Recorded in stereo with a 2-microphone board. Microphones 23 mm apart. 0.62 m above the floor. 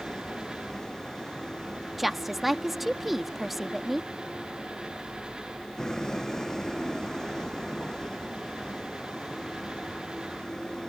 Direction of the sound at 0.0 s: 25° left (ahead or behind).